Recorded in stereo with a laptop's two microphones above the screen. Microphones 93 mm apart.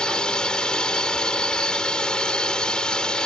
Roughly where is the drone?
Centre.